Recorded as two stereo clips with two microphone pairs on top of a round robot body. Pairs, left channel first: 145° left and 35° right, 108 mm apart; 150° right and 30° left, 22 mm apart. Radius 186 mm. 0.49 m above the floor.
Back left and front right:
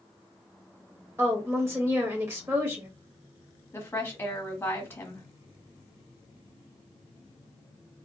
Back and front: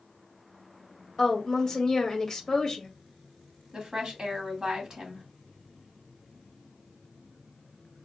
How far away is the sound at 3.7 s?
About 1.3 m.